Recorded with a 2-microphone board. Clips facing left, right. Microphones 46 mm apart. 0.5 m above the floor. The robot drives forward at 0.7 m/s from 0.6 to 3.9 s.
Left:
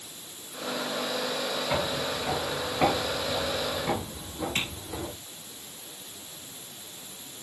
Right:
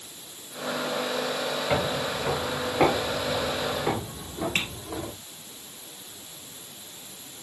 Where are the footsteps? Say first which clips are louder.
Right 3 dB; 50° right (ahead or behind), 4.5 m; by 5.1 s 85° right, 6 m.